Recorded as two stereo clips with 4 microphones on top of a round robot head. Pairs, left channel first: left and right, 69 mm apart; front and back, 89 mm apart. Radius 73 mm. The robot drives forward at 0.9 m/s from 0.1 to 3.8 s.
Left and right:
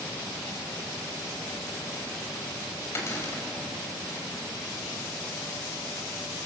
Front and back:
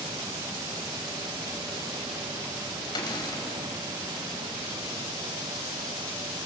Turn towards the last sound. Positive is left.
turn(degrees=50)